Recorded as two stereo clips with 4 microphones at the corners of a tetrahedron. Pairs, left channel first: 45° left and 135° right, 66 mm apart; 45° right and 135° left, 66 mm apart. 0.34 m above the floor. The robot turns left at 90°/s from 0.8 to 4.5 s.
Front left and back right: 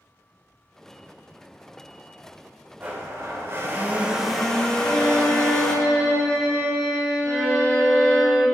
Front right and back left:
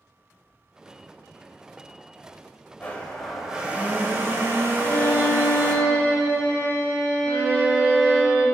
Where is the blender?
85° right, 0.5 m; by 5.8 s 120° left, 0.5 m.